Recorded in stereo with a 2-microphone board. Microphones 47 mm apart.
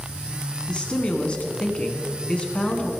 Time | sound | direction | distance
0.7 | a man speaking | 25° left (ahead or behind) | 1.3 m